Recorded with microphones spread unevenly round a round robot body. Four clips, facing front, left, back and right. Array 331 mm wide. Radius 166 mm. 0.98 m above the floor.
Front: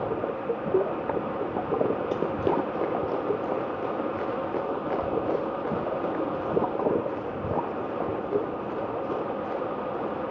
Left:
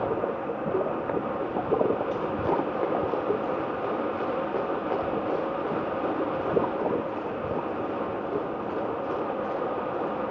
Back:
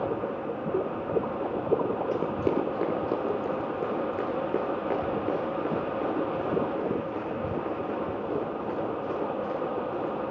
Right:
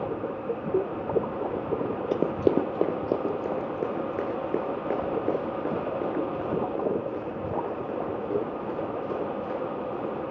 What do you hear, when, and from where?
2.1 s running footsteps: 80° right, 1.5 m; by 10.1 s 120° right, 12 m